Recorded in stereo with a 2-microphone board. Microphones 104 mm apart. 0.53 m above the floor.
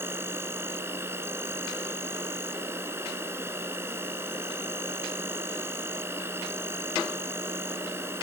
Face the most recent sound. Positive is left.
turn(degrees=-25)  # may be behind; listen again after turning